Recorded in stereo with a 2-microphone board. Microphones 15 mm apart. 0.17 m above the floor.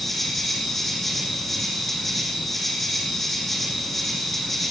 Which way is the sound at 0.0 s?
10° left (ahead or behind).